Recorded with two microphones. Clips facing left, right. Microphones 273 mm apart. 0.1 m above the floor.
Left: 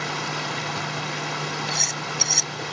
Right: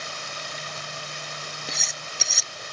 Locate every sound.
0.0 s running water: 85° left
1.7 s cutlery clinking: centre (ahead or behind)